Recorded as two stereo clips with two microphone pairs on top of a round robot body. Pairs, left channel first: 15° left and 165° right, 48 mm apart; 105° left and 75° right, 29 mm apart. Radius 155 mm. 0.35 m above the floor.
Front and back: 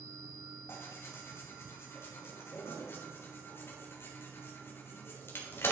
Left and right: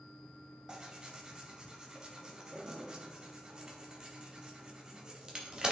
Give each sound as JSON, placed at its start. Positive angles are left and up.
{"t": 0.7, "sound": "tearing paper", "azimuth_deg": -20, "distance_m": 2.5}